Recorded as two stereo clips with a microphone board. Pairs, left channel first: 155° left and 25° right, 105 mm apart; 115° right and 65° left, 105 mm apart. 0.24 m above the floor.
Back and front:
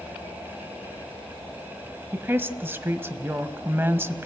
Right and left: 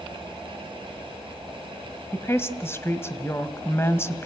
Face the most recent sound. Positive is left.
turn(degrees=-70)